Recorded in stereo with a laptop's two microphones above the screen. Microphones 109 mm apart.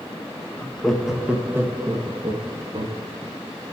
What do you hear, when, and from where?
0.6 s laughter: 15° left (ahead or behind), 1.5 m; by 3.0 s 50° right (ahead or behind), 2 m